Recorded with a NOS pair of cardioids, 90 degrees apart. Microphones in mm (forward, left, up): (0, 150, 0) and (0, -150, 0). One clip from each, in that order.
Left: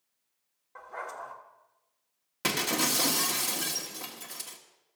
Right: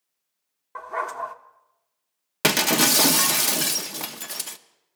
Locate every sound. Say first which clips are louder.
0.8 s a dog barking: right 11 dB; 65° right, 1.2 m
2.4 s breaking glass: right 9 dB; 60° right, 1.0 m